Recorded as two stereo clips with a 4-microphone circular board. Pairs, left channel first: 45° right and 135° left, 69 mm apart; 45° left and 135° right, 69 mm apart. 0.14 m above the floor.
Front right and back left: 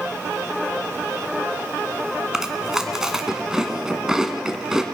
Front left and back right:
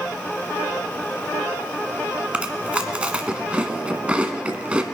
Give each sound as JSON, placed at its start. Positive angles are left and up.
{"t": 2.3, "sound": "chewing", "azimuth_deg": -160, "distance_m": 1.4}